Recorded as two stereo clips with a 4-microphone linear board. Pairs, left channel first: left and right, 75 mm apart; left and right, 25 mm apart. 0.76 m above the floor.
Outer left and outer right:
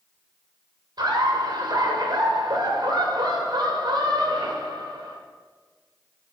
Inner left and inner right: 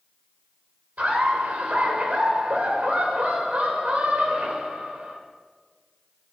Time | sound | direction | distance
1.0 | laughter | 70° right (ahead or behind) | 2.5 m